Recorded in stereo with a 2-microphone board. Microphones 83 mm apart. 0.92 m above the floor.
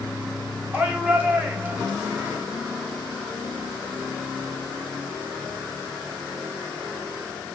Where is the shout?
20° right (ahead or behind), 2 m.